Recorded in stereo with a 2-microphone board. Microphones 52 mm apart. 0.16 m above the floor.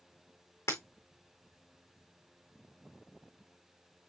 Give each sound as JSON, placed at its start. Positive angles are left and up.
{"t": 0.7, "sound": "breaking glass", "side_deg": 75, "distance_m": 4.0}